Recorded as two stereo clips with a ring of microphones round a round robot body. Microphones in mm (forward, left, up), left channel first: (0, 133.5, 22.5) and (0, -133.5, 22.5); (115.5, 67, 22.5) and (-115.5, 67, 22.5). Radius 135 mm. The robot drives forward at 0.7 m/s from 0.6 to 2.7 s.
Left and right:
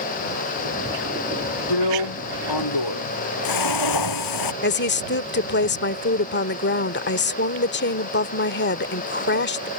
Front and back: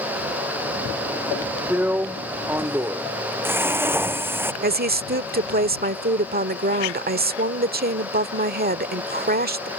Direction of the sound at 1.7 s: 95° left.